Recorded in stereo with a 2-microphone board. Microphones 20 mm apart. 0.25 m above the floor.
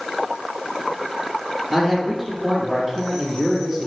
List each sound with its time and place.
1.7 s a man speaking: 10° right (ahead or behind), 8 m